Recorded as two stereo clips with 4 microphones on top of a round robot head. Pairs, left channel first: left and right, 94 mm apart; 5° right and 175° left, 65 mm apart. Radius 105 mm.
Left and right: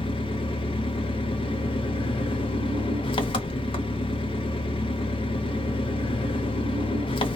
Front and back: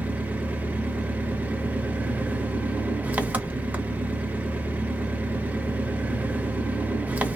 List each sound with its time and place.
0.0 s an engine running: 110° left, 0.9 m